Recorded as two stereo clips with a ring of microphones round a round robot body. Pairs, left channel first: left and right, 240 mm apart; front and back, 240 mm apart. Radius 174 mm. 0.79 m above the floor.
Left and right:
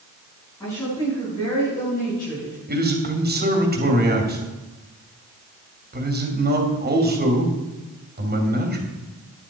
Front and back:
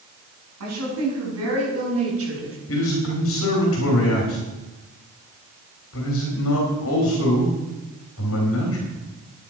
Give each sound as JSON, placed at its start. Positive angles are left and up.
{"t": 0.6, "sound": "a woman speaking", "azimuth_deg": 170, "distance_m": 6.5}
{"t": 2.7, "sound": "a man speaking", "azimuth_deg": -40, "distance_m": 3.0}